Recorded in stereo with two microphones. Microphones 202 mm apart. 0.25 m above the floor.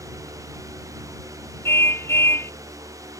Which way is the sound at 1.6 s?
10° left (ahead or behind).